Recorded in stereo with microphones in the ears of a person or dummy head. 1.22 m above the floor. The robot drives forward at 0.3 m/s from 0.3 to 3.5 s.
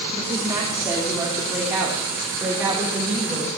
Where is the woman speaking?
15° right (ahead or behind), 2.5 m; by 3.5 s 10° right (ahead or behind), 3.5 m.